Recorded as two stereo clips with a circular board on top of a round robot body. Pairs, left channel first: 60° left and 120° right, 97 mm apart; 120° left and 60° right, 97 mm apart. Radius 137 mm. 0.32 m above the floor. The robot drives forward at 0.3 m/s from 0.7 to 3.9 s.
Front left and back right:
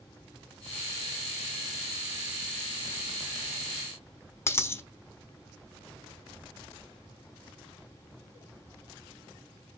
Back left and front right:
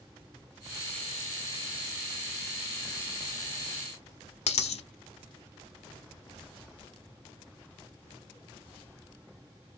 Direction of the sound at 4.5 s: 125° left.